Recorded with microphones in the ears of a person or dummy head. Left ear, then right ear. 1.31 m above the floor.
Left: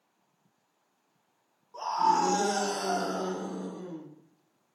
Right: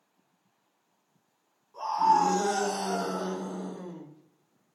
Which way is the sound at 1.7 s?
55° left (ahead or behind).